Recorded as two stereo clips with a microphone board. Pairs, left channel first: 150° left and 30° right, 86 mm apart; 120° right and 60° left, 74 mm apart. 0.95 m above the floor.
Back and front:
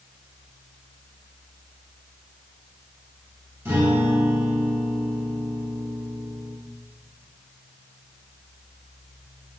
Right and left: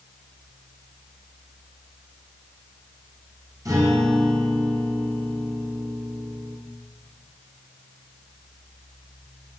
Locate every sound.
3.6 s a guitar: 25° left, 6 m